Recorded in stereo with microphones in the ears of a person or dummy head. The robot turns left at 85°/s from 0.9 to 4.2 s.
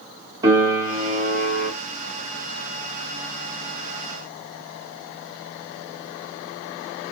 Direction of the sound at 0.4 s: 25° right.